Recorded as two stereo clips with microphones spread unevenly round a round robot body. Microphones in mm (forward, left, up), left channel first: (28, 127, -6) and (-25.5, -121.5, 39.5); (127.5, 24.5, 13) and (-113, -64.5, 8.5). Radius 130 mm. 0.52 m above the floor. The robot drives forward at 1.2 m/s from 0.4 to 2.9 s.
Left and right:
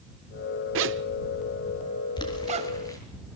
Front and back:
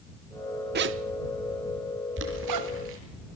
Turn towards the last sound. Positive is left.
turn(degrees=155)